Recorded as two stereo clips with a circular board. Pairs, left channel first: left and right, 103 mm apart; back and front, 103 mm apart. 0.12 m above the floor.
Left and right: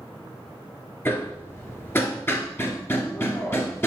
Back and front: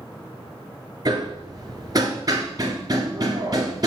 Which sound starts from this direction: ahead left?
Hammering, at 1.1 s.